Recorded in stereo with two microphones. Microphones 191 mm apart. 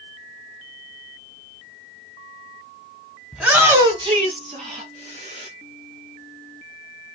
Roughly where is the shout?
Centre.